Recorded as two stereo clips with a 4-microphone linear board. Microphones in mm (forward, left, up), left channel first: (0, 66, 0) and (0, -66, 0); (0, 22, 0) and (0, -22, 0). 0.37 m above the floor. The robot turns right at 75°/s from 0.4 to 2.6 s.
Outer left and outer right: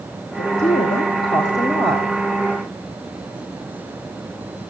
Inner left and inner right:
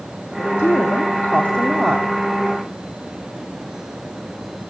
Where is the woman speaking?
70° left, 2.5 m; by 2.1 s 165° right, 2.5 m.